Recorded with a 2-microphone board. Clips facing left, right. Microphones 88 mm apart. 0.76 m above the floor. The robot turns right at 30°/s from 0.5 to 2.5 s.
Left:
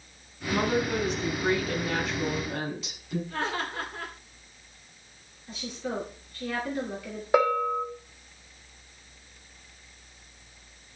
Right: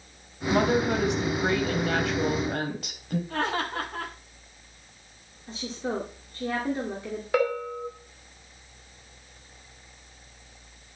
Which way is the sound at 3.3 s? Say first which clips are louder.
Right 4 dB; 55° right (ahead or behind).